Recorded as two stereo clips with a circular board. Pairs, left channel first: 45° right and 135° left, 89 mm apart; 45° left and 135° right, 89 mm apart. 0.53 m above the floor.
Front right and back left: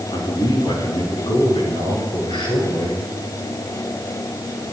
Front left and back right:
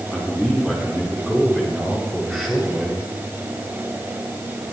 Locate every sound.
0.1 s a man speaking: 35° right, 7 m; by 3.0 s 45° right, 8 m